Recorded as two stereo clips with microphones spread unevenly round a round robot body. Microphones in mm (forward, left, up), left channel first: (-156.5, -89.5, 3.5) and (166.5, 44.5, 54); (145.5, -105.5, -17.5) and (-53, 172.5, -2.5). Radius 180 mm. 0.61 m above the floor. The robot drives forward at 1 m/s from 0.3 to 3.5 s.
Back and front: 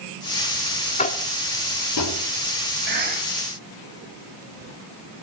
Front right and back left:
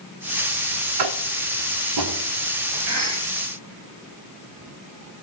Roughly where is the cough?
Left.